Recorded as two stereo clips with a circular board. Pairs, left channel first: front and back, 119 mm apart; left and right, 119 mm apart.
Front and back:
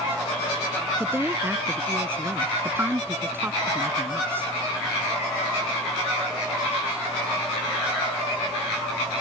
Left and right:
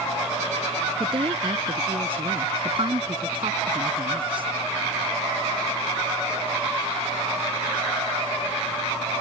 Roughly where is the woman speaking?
Behind right.